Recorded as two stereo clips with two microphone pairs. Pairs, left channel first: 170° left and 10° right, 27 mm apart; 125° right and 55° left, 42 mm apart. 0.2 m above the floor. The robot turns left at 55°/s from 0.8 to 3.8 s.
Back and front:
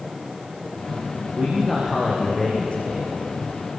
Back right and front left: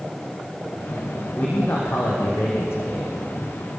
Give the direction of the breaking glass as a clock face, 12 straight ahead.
I don't hear breaking glass.